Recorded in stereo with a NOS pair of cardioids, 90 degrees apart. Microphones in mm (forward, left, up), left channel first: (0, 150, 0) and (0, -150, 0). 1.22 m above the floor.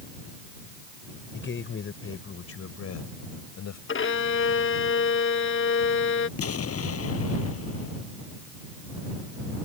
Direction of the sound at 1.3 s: 40° left.